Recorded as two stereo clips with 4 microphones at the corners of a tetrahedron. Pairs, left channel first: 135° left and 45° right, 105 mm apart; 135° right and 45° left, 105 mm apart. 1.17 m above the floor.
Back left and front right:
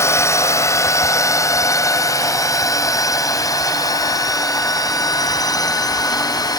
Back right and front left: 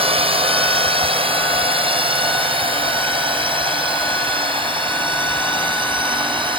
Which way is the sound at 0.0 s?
70° left.